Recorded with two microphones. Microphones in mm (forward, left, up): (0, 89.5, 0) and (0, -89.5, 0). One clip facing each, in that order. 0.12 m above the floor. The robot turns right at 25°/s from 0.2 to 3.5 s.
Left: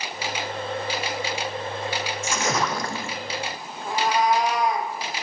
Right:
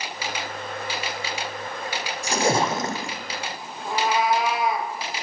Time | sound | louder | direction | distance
2.2 | a splash | right 5 dB | 40° right (ahead or behind) | 1.0 m
3.9 | a cat meowing | even | 5° right (ahead or behind) | 1.4 m